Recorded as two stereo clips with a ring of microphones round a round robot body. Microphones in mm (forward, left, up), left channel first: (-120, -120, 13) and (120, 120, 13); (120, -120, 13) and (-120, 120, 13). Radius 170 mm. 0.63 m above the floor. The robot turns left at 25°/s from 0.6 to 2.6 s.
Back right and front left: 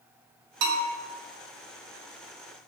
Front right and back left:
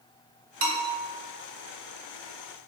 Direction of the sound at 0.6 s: 70° left.